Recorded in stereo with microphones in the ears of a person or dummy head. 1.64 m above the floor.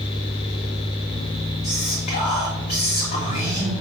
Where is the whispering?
45° left (ahead or behind), 3 m.